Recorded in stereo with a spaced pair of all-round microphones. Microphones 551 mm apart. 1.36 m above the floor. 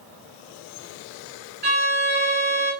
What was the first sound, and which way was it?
A violin, 45° right (ahead or behind).